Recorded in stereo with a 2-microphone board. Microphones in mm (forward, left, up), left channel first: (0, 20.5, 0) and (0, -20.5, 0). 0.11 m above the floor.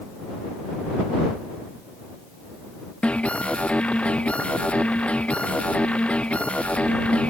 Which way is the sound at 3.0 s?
30° left (ahead or behind).